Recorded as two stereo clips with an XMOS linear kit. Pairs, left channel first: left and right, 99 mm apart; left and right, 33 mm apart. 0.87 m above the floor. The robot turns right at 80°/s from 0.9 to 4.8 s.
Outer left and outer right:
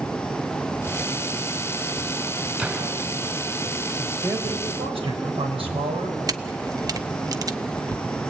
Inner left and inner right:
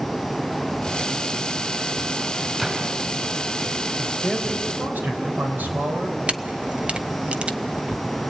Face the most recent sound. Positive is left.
turn(degrees=-35)  # may be behind; listen again after turning